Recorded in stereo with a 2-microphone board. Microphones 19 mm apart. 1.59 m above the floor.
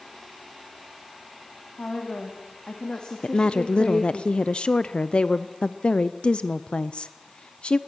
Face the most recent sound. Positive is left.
turn(degrees=55)  # may be behind; listen again after turning